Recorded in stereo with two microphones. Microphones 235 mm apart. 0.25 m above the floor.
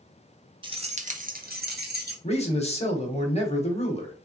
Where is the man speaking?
25° left (ahead or behind), 1.0 m.